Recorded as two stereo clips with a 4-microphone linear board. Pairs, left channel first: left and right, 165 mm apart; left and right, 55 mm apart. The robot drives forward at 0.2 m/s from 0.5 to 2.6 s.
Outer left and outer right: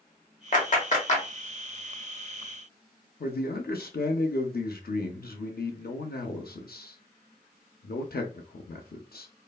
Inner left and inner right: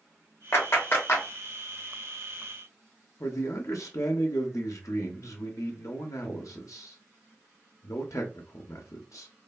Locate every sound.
0.5 s a clap: 50° left (ahead or behind), 1.0 m; by 1.2 s 45° left (ahead or behind), 1.0 m
3.2 s a man speaking: 70° left (ahead or behind), 0.5 m